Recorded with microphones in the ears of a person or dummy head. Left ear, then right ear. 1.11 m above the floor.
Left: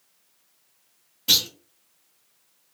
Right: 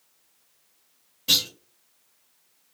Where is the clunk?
15° left (ahead or behind), 1.4 m.